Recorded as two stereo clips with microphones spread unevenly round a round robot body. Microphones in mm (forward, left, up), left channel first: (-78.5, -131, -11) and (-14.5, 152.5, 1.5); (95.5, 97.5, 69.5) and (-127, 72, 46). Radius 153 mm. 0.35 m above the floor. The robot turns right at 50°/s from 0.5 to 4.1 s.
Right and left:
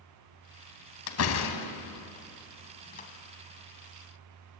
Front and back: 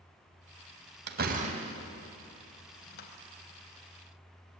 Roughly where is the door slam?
Behind right.